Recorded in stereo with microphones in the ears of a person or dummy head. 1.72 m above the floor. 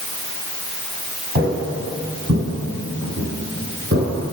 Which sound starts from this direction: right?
Footsteps, at 1.4 s.